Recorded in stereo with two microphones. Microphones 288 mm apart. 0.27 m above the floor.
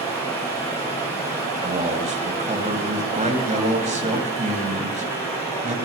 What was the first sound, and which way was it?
Running water, 15° left (ahead or behind).